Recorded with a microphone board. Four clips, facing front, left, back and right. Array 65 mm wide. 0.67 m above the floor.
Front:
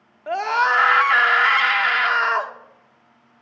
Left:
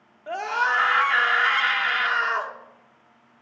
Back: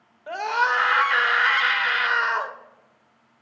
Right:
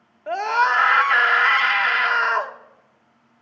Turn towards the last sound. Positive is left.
turn(degrees=-20)